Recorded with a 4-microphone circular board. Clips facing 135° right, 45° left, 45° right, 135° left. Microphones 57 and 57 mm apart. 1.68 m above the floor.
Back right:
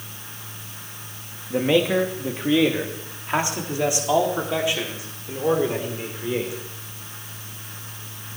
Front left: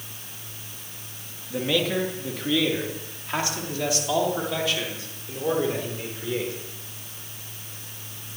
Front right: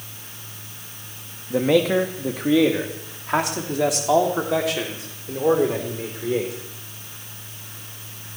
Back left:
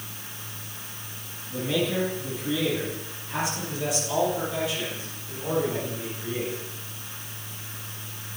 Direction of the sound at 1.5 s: 70° right.